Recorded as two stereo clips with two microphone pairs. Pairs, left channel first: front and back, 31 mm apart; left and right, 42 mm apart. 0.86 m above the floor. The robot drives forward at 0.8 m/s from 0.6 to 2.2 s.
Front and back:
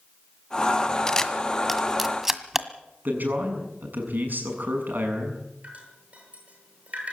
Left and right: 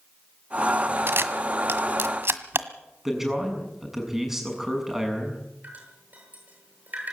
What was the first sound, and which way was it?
A camera shutter, 65° right.